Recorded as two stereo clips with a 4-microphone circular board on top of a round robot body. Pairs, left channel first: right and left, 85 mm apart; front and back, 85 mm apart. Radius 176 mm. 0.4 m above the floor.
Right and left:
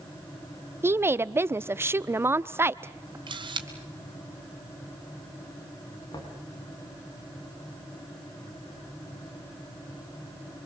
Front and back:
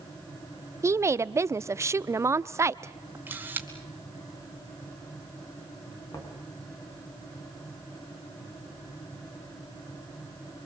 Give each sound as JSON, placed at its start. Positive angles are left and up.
{"t": 0.8, "sound": "a woman speaking", "azimuth_deg": 140, "distance_m": 1.0}
{"t": 3.3, "sound": "a camera shutter", "azimuth_deg": 110, "distance_m": 2.5}
{"t": 6.1, "sound": "knocking", "azimuth_deg": -55, "distance_m": 4.5}